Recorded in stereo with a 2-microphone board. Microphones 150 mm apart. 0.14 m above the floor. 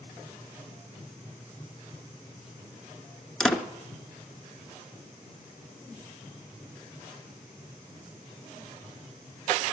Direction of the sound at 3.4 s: 5° left (ahead or behind).